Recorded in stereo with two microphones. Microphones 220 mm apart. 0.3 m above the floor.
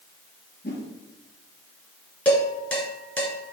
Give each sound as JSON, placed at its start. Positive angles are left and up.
{"t": 0.6, "sound": "a whoosh", "side_deg": 50, "distance_m": 2.5}
{"t": 2.2, "sound": "dishes clattering", "side_deg": 5, "distance_m": 3.0}